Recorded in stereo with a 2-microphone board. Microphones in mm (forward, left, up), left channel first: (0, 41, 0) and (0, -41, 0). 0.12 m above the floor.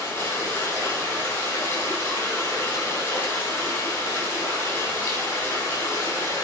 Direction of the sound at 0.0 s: 40° left (ahead or behind).